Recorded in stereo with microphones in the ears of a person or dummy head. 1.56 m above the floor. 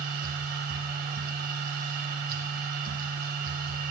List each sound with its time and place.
0.0 s a machine running: 50° right (ahead or behind), 0.9 m